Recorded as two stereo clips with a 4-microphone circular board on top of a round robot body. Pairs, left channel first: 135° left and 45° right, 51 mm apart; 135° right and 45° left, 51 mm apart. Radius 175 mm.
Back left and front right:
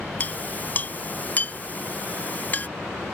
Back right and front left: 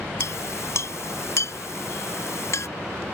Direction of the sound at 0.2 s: 165° right.